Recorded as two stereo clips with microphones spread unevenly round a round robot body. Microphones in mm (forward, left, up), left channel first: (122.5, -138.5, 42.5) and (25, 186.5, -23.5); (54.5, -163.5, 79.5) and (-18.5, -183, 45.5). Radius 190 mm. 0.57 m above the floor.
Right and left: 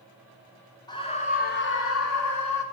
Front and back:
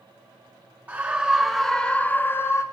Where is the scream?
160° right, 1.4 m; by 2.6 s 55° right, 1.3 m.